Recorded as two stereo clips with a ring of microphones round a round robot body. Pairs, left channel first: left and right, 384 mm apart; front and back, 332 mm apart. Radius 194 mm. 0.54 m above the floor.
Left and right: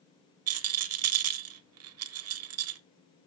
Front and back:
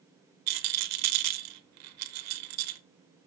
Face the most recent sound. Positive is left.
turn(degrees=-140)